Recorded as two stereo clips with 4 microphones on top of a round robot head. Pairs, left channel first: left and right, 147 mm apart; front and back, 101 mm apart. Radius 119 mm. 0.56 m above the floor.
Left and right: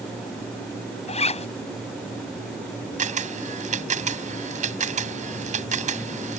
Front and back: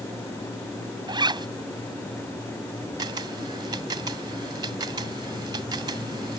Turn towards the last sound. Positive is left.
turn(degrees=-125)